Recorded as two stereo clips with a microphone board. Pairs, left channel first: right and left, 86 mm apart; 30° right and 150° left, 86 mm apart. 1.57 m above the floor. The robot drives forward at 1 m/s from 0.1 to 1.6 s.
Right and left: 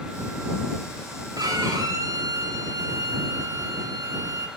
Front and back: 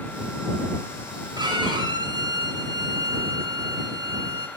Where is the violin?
125° left, 2.0 m; by 4.5 s 130° left, 2 m.